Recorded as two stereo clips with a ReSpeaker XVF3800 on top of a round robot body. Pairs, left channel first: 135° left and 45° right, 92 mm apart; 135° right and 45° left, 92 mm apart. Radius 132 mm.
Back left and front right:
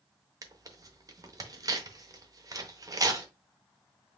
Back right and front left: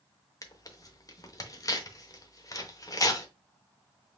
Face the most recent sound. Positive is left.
turn(degrees=-90)